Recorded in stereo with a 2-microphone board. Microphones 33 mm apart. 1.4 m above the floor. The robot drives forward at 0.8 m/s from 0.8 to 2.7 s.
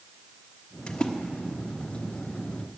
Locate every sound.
0.9 s a splash: 30° left (ahead or behind), 0.9 m; by 1.1 s 25° left (ahead or behind), 1.1 m